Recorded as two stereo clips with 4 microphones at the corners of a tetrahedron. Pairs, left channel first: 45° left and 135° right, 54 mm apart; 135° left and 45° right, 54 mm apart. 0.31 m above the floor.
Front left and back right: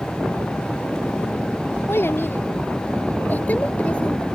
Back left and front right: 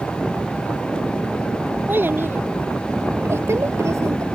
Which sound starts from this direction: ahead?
A child speaking, at 1.9 s.